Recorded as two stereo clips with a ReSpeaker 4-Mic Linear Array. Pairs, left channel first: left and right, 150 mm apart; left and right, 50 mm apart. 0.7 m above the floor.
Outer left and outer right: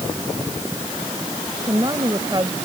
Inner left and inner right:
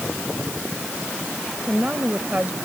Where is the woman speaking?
30° right (ahead or behind).